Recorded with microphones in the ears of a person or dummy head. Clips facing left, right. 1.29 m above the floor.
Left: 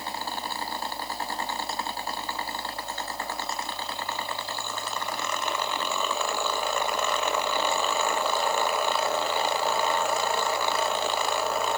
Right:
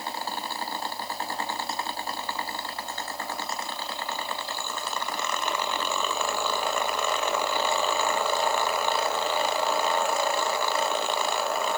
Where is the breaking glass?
No breaking glass in this recording.